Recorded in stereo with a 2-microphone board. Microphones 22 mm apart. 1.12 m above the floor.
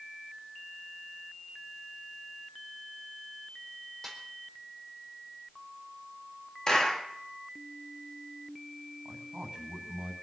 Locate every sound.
4.0 s a snare drum: 10° left (ahead or behind), 4.5 m
6.7 s a clap: 35° left (ahead or behind), 2.5 m
9.1 s a man speaking: 40° right (ahead or behind), 7 m